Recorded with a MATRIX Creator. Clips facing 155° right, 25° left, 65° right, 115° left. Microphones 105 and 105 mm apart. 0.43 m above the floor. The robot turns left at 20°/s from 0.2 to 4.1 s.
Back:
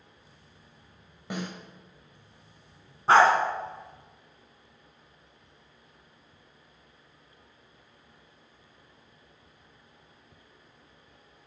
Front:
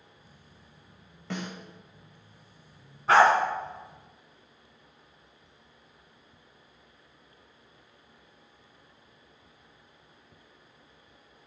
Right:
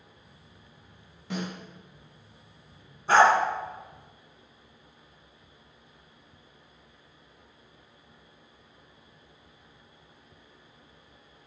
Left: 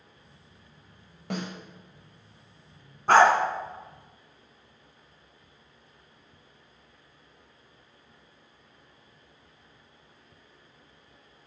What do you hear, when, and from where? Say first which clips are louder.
1.3 s a snare drum: back 1 dB, even; 130° left, 1.7 m; by 1.5 s 125° left, 1.7 m
3.1 s a dog barking: back 1 dB, left 1 dB; 145° left, 1.4 m; by 3.3 s 140° left, 1.4 m